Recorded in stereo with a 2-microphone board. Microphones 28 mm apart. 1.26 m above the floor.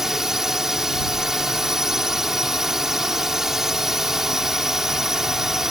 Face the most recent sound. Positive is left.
turn(degrees=-15)  # may be behind; listen again after turning